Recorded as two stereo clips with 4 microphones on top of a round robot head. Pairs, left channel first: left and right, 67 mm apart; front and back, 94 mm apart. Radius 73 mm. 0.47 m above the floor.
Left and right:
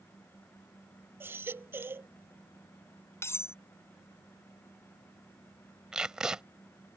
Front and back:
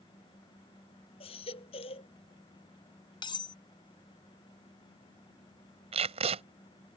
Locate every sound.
1.2 s a baby crying: 35° right
3.2 s cutlery clinking: 40° left
5.9 s tape being pulled: 170° right